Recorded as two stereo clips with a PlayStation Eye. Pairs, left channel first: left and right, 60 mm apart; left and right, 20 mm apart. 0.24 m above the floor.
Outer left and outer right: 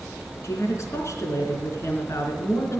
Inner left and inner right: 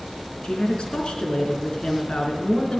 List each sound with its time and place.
0.4 s a woman speaking: 55° left (ahead or behind), 3 m